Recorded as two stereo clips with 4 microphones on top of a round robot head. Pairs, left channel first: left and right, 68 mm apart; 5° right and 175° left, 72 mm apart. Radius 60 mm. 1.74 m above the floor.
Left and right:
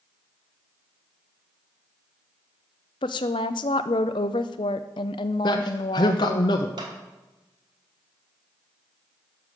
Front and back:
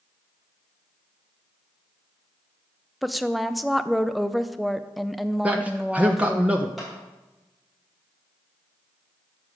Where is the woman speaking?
85° left, 0.5 m.